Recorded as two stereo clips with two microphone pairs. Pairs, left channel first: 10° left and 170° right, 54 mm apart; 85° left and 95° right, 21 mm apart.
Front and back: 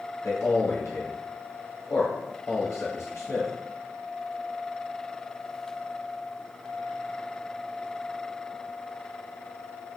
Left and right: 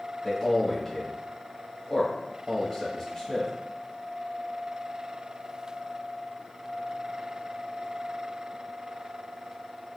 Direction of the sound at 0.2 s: 35° left.